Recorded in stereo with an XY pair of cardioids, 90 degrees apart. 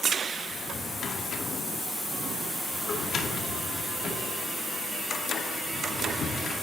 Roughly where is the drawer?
Ahead left.